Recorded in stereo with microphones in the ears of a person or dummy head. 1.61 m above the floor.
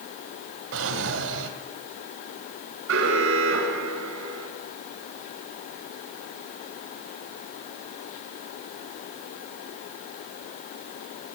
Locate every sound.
0.7 s a drawer: 65° right (ahead or behind), 3 m
2.9 s an alarm: 85° right, 6.5 m